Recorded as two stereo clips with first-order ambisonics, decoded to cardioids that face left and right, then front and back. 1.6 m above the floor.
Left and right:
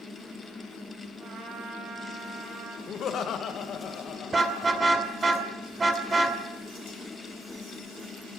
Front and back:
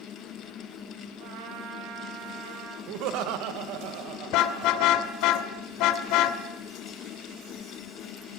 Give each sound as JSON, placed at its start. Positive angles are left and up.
{"t": 1.2, "sound": "a trumpet", "azimuth_deg": -160, "distance_m": 7.0}
{"t": 2.9, "sound": "laughter", "azimuth_deg": 150, "distance_m": 2.0}
{"t": 4.3, "sound": "a car horn", "azimuth_deg": -15, "distance_m": 2.5}